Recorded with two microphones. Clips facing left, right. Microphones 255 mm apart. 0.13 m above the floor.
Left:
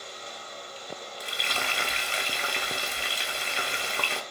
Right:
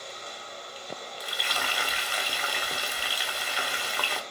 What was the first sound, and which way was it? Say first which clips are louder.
Frying: left 2 dB; 25° left (ahead or behind).